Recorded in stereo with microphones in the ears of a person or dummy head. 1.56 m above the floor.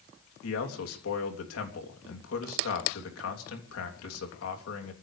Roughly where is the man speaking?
Left.